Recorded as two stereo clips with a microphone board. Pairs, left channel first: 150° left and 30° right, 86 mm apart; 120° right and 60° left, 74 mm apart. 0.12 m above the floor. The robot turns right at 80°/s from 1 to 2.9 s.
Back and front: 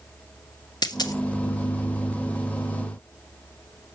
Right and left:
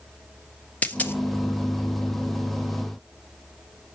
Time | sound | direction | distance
0.8 | a dropped coin | 175° left | 1.0 m